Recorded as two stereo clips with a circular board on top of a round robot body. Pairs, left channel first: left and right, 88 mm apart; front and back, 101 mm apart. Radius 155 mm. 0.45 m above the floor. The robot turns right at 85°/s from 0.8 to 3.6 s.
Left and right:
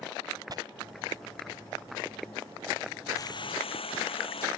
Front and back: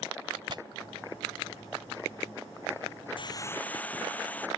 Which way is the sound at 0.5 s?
135° right.